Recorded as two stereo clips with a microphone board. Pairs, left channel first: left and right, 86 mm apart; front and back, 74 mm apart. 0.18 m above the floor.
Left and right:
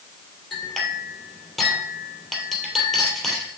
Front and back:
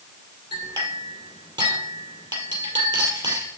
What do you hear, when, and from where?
0.5 s a clink: 175° left, 3 m